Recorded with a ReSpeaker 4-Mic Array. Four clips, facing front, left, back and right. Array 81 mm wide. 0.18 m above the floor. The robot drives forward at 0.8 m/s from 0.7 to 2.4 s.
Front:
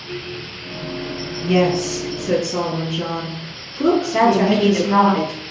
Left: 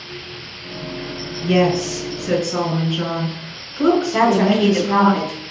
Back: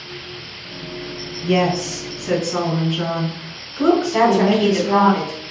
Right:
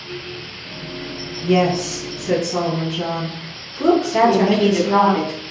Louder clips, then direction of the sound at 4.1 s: Right 1 dB, even; 115° left.